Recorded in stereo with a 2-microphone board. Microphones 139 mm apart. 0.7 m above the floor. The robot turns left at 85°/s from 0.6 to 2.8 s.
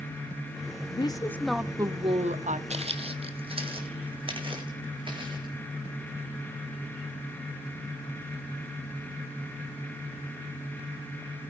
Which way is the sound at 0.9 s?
50° left.